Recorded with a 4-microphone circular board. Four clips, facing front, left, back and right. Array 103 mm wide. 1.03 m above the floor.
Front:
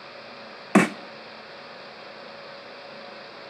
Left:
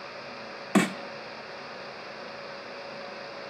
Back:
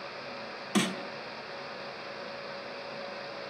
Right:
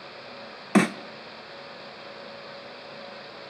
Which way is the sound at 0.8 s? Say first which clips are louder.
Right 3 dB, front 10 dB; 10° right.